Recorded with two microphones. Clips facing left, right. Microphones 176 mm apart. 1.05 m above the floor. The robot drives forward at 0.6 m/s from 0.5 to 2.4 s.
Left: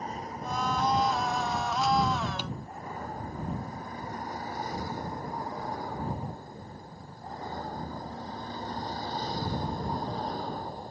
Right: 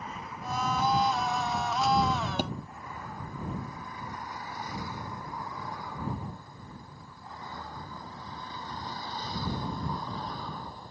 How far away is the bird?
I don't hear a bird.